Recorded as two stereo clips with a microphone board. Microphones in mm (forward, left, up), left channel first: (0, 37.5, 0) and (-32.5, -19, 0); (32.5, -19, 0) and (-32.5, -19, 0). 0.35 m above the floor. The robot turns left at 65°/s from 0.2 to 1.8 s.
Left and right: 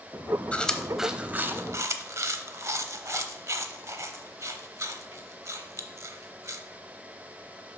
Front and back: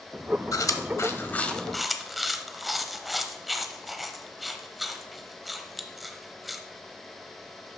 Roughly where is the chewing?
Ahead.